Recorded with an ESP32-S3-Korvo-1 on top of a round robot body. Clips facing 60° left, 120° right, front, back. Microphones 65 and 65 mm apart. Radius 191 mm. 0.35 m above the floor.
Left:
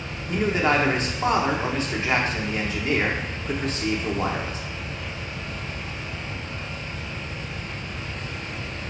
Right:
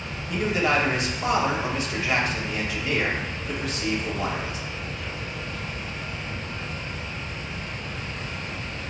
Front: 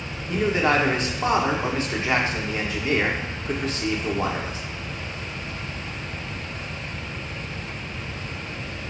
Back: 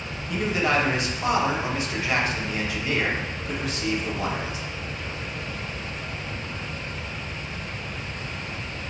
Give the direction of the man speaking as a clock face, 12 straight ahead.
11 o'clock.